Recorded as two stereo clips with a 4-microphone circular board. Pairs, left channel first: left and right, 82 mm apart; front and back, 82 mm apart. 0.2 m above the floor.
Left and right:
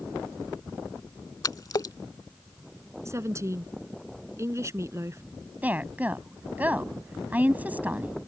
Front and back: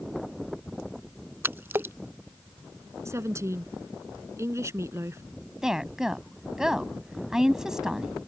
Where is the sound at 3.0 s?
135° right.